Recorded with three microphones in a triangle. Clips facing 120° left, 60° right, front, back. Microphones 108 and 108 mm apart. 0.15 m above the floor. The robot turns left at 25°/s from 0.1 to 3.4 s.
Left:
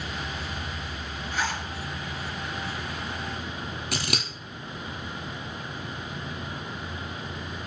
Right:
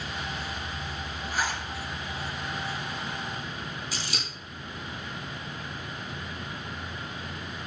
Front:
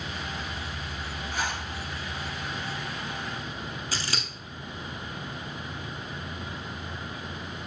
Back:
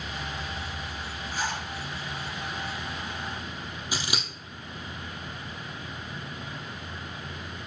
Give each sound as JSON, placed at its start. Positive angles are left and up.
{"t": 1.3, "sound": "a zipper", "azimuth_deg": 25, "distance_m": 2.0}
{"t": 3.9, "sound": "scissors", "azimuth_deg": 105, "distance_m": 1.6}